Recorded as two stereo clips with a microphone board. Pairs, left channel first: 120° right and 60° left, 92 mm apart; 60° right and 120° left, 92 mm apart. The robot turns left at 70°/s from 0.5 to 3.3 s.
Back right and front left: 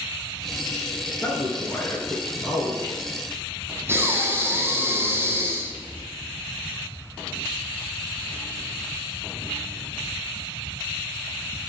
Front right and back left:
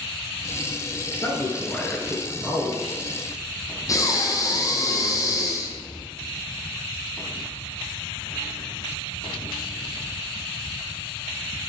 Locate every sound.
1.2 s a man speaking: 90° right, 1.9 m; by 2.8 s 160° left, 1.9 m
3.9 s breathing: 5° right, 1.3 m